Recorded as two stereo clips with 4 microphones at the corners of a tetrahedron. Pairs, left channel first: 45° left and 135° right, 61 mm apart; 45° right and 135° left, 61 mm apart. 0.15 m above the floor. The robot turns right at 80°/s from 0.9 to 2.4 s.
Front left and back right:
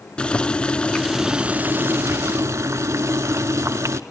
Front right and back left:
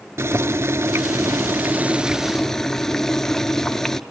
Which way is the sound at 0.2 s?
115° left.